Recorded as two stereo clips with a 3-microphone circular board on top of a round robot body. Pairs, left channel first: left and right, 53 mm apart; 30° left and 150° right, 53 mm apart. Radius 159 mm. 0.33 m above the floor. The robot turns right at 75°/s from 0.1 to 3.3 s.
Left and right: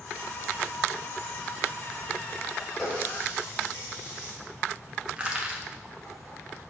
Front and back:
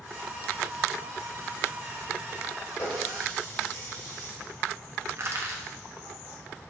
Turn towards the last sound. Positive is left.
turn(degrees=-155)